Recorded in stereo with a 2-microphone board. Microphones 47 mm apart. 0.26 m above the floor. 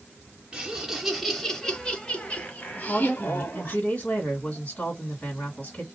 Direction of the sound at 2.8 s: 25° left (ahead or behind).